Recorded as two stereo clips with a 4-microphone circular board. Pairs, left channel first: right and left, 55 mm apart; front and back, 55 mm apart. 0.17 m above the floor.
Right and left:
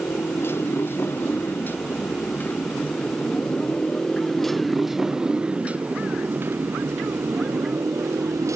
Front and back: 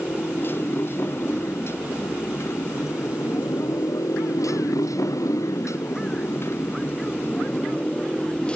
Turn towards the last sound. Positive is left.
turn(degrees=70)